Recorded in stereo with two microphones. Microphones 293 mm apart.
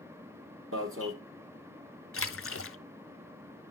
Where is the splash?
50° left (ahead or behind), 0.5 m.